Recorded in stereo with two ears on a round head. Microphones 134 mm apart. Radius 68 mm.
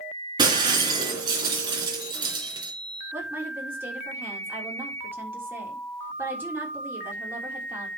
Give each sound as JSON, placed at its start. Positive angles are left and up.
{"t": 0.4, "sound": "breaking glass", "side_deg": -25, "distance_m": 2.5}
{"t": 3.1, "sound": "a woman speaking", "side_deg": -15, "distance_m": 3.5}